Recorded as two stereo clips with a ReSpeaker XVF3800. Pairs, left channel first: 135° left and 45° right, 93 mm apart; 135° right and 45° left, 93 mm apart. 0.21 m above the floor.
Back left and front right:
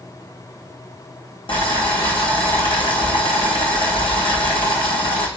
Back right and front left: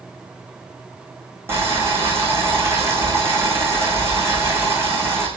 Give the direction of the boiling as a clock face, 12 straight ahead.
8 o'clock.